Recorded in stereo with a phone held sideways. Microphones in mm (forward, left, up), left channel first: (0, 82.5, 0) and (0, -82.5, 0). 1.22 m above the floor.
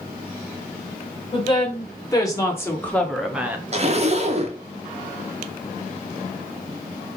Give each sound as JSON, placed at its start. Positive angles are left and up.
{"t": 1.3, "sound": "a woman speaking", "side_deg": 30, "distance_m": 2.0}
{"t": 3.7, "sound": "a zipper", "side_deg": -40, "distance_m": 0.8}